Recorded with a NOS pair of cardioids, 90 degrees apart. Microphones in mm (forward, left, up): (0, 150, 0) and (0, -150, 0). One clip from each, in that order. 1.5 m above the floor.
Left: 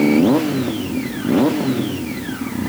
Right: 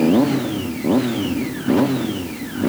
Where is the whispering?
No whispering in this recording.